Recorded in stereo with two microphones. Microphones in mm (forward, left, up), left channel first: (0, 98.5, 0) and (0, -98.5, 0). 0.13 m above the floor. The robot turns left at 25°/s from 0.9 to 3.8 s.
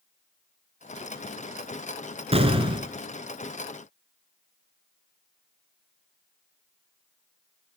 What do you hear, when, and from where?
2.3 s an explosion: 30° right (ahead or behind), 1.8 m; by 2.9 s 25° right (ahead or behind), 1.8 m